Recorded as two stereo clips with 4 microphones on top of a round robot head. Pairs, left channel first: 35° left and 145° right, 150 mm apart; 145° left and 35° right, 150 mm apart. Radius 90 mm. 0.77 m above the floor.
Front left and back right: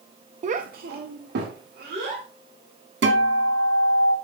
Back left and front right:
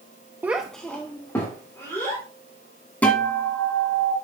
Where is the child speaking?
110° right, 0.5 m; by 2.2 s 145° right, 3 m.